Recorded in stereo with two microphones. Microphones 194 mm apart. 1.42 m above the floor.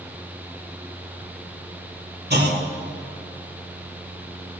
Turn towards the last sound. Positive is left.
turn(degrees=-55)  # may be behind; listen again after turning